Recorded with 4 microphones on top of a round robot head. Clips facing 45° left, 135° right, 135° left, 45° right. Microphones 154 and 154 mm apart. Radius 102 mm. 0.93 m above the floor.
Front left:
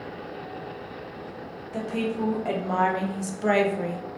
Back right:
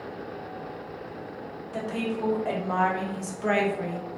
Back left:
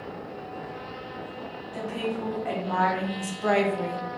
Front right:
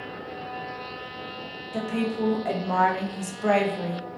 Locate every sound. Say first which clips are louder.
1.7 s a woman speaking: front left 2 dB, front right 4 dB; 35° right, 1.1 m; by 4.1 s 65° left, 0.7 m